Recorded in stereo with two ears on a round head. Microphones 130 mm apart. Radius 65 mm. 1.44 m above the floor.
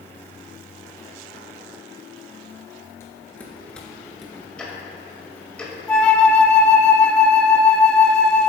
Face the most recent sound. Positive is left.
turn(degrees=5)  # may be behind; listen again after turning